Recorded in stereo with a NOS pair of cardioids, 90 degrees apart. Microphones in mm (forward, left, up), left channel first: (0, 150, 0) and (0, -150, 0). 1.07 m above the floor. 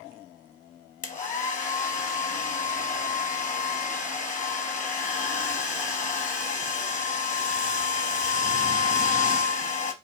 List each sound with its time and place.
1.0 s a hair dryer: 25° left, 0.8 m